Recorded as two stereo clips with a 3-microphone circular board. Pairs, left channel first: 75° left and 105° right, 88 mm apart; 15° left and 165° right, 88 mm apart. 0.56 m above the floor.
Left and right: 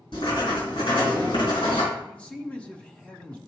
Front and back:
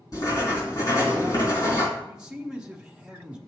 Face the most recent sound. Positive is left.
turn(degrees=125)